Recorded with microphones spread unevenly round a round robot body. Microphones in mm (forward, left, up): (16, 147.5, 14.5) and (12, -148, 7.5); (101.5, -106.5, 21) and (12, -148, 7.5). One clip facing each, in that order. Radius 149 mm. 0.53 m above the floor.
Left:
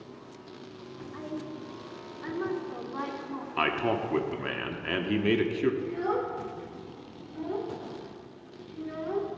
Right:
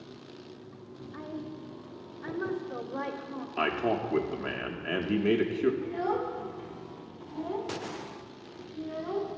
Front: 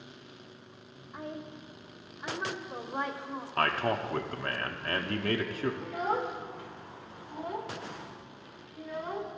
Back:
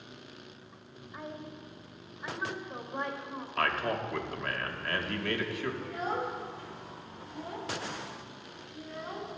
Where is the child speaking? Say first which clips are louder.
Left 1 dB, front 2 dB; 5° right, 1.3 m.